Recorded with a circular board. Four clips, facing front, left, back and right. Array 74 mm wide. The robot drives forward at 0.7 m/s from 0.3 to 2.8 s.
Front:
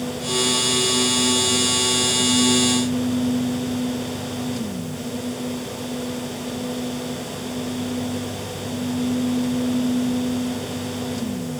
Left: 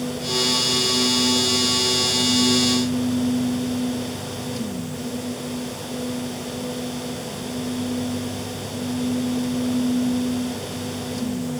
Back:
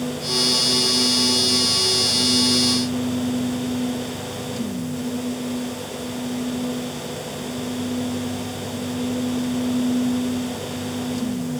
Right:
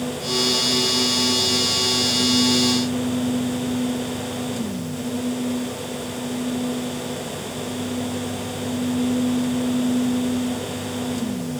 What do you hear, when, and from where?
Only background noise.